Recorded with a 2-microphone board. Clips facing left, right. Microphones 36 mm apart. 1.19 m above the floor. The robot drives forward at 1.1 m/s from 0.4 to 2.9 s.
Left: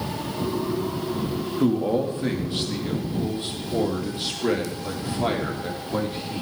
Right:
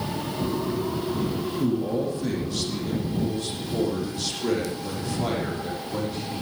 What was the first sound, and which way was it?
A man speaking, 45° left (ahead or behind).